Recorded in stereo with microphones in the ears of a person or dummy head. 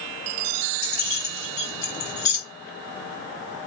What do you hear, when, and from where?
0.8 s keys jangling: 25° left (ahead or behind), 1.8 m